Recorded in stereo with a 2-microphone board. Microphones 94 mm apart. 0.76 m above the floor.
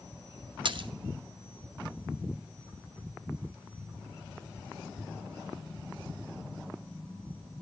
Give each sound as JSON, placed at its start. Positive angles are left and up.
{"t": 0.7, "sound": "a splash", "side_deg": -60, "distance_m": 0.6}